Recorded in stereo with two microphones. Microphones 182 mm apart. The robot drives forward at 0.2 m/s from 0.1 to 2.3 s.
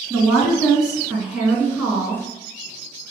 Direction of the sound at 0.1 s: 5° right (ahead or behind).